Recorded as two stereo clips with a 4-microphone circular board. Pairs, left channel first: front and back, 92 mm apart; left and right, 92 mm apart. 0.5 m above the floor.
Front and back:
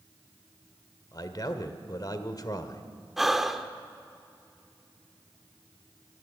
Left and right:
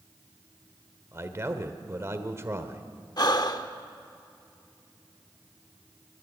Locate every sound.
1.1 s a man speaking: 35° right, 1.4 m
3.2 s breathing: 95° left, 0.8 m